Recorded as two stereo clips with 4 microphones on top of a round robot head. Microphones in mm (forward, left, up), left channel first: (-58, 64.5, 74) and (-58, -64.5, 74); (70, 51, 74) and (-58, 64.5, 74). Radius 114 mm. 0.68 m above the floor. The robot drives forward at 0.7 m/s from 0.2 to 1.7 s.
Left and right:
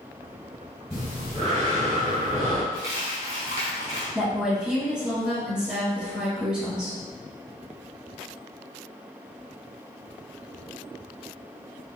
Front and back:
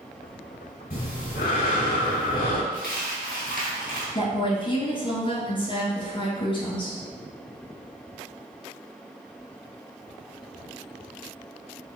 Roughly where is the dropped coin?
Right.